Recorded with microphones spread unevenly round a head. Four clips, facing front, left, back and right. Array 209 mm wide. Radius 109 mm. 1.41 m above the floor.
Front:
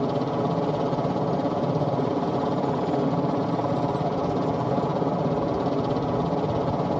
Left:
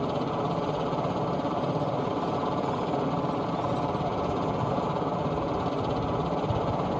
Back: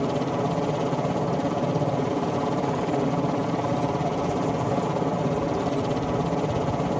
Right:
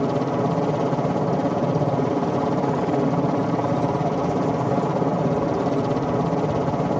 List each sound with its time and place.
0.0 s a helicopter: 85° right